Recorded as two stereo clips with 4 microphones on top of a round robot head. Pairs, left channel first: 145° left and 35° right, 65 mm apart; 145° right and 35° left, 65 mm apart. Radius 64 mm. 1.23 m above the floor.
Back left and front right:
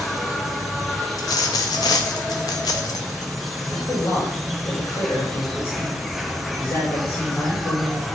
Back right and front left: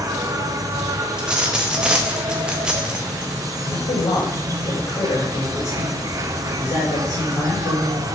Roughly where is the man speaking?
Behind.